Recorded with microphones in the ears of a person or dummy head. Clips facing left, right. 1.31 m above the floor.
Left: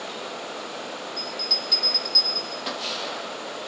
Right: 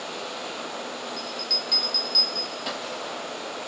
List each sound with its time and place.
1.2 s a bell: centre (ahead or behind), 1.1 m